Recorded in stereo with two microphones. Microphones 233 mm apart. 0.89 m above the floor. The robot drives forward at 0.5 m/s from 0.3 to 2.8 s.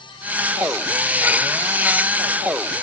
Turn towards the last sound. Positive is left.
No sound to turn to.